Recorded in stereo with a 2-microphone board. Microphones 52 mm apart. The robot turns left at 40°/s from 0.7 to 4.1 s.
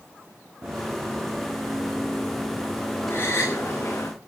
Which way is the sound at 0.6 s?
30° right (ahead or behind).